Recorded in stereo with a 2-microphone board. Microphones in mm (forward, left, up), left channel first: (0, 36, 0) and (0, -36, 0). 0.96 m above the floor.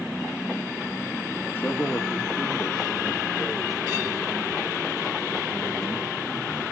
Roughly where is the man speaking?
Left.